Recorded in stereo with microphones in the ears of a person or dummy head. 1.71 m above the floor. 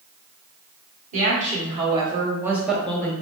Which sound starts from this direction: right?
A woman speaking, at 1.1 s.